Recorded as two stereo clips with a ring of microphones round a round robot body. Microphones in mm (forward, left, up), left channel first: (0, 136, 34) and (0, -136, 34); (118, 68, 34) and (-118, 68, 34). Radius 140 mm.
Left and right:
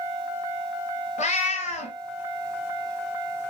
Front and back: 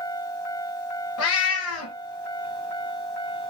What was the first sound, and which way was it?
A cat meowing, 25° left.